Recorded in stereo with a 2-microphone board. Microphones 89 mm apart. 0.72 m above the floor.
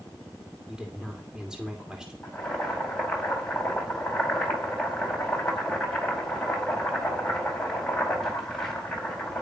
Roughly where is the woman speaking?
Centre.